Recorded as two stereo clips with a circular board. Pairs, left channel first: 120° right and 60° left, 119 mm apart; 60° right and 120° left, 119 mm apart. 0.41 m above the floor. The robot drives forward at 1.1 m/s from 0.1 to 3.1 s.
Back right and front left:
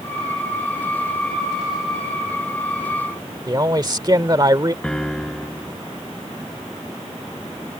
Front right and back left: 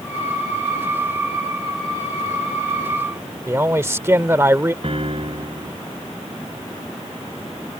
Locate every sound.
3.5 s a man speaking: 70° left
4.8 s a piano: 155° left